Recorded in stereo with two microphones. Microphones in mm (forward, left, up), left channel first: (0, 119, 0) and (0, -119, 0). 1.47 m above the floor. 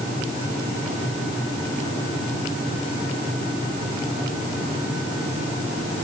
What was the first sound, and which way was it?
Only background noise.